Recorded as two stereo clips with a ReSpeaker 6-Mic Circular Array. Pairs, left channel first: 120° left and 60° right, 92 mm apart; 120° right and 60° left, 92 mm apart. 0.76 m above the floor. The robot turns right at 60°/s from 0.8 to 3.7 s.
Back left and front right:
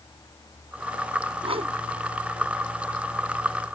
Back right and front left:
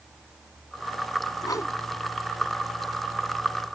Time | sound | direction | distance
1.4 | a whoosh | 75° right | ?